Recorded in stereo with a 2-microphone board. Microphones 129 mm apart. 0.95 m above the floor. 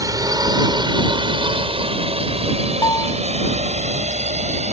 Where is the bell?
30° left (ahead or behind).